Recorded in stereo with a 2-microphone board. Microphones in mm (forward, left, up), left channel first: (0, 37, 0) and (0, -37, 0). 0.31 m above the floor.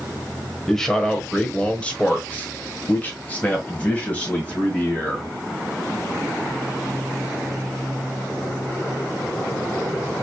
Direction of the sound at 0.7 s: 5° left (ahead or behind).